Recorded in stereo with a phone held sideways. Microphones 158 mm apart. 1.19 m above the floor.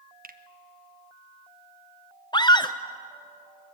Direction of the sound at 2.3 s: 30° left (ahead or behind).